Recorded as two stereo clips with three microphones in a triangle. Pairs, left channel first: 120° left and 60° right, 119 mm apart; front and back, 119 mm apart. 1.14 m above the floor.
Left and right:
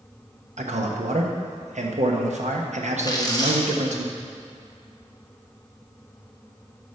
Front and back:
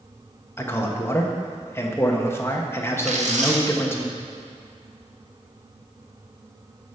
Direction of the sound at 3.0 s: 175° left.